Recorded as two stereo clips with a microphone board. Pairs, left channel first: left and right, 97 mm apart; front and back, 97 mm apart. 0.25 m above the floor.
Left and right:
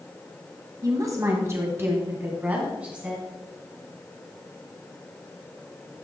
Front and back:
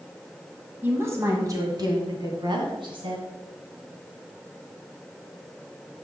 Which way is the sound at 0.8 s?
125° right.